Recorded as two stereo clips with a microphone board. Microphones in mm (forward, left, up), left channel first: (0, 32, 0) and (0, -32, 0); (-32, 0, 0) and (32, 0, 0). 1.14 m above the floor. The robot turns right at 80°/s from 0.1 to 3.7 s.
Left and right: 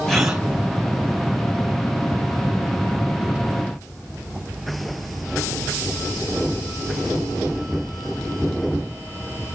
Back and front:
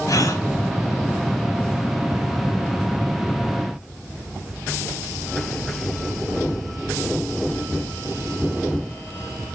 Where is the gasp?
175° left, 3 m; by 0.4 s 160° right, 3 m.